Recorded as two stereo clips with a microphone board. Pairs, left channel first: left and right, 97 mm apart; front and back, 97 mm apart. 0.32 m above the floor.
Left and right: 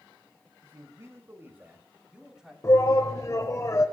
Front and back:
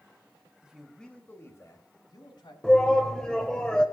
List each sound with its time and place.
0.6 s a man speaking: 110° right, 1.7 m; by 2.5 s 5° right, 2.5 m
2.6 s a shout: 75° left, 1.1 m